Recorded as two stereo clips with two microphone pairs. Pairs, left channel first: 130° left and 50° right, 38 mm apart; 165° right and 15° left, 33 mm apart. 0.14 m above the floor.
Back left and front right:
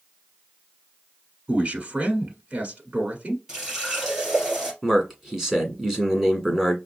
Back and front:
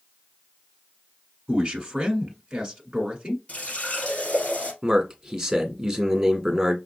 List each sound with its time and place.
1.5 s a man speaking: 45° right, 1.4 m
3.5 s a running tap: 120° right, 2.5 m
4.8 s a man speaking: 15° left, 1.4 m